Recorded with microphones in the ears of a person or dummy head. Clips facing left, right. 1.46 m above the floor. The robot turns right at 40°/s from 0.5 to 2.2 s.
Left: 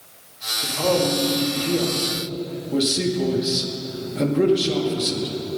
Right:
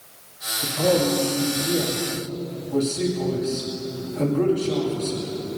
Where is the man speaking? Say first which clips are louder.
Even; 25° right, 2.5 m; by 5.3 s 35° left, 2.5 m.